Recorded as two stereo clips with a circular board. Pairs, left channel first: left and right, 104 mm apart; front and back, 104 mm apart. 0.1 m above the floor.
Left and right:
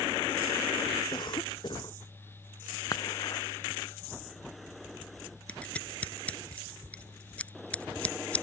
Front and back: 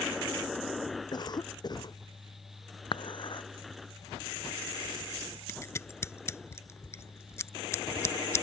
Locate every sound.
1.1 s a cough: 45° left
2.9 s dishes clattering: 40° left
5.5 s scissors: 25° left